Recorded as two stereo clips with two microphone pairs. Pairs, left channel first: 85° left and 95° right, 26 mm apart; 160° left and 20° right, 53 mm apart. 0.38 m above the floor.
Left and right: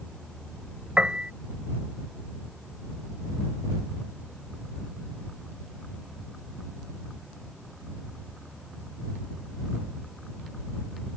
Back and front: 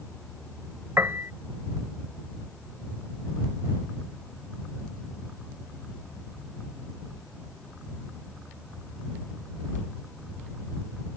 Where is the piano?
55° right.